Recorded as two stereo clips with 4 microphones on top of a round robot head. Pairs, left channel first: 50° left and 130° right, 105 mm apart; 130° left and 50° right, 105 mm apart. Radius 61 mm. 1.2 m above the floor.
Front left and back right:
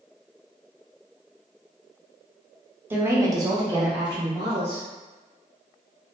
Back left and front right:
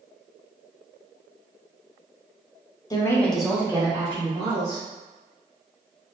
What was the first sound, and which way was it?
A woman speaking, 165° left.